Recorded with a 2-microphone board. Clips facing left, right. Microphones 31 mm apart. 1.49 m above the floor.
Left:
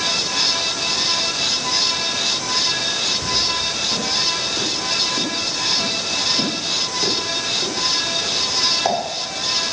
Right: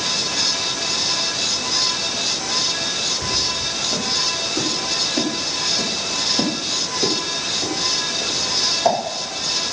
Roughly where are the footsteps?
Right.